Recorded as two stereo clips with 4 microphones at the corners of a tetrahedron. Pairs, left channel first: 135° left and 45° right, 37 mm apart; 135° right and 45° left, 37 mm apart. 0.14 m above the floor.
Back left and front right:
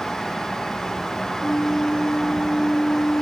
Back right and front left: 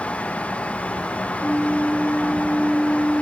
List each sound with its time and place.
1.4 s a flute: 140° left, 3.5 m